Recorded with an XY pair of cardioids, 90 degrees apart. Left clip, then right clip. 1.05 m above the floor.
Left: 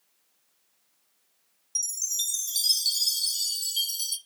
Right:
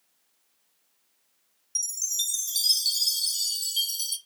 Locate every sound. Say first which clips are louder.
1.8 s a chime: right 1 dB; 10° right, 1.5 m